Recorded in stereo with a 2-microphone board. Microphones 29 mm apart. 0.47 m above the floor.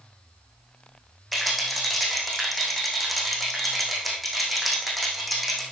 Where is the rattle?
5° left (ahead or behind), 3.5 m.